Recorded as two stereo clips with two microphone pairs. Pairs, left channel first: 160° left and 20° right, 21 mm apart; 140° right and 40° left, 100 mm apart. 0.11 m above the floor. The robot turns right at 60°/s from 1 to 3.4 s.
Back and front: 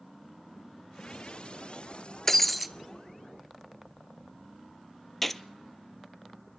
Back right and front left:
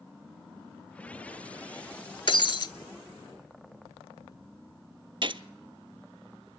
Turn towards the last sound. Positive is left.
turn(degrees=70)